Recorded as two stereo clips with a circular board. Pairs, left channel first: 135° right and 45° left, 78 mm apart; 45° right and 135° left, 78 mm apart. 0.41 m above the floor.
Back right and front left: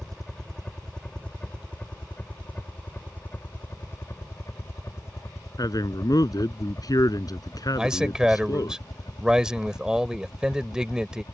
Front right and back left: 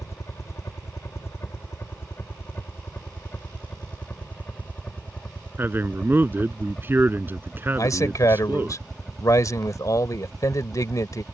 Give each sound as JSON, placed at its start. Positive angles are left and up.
{"t": 0.0, "sound": "a helicopter", "azimuth_deg": -50}
{"t": 5.6, "sound": "a man speaking", "azimuth_deg": -165}
{"t": 7.8, "sound": "a man speaking", "azimuth_deg": -30}